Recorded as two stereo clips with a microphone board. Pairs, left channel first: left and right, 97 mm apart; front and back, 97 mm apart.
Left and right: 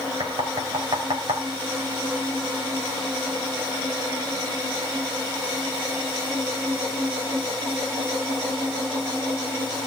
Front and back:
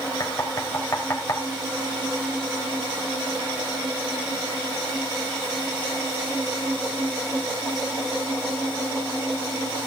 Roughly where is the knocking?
Ahead right.